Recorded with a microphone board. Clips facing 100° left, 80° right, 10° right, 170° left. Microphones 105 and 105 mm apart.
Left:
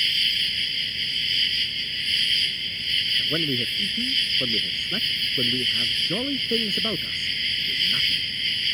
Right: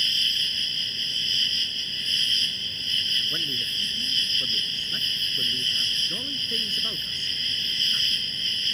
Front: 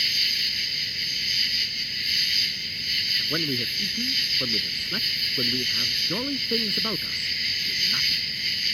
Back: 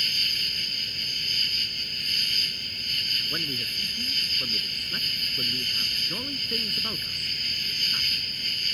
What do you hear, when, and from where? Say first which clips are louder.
0.0 s an insect: left 2 dB, front 2 dB; 140° right
3.2 s a man speaking: left 9 dB, front 8 dB; 50° left